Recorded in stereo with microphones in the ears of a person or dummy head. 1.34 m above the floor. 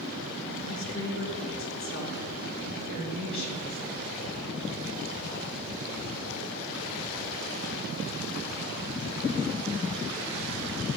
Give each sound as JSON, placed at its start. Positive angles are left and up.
{"t": 0.7, "sound": "a woman speaking", "side_deg": 65, "distance_m": 3.0}